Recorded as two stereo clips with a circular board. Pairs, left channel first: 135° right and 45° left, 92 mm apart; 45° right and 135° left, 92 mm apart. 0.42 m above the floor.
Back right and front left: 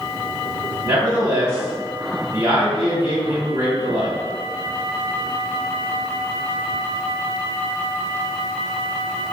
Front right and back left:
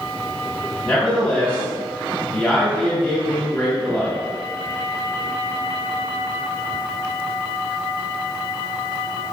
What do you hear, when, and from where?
0.8 s a man speaking: 20° left, 1.4 m